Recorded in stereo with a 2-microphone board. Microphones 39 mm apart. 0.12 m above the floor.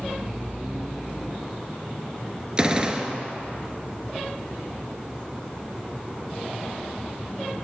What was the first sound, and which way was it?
A gunshot, 20° right (ahead or behind).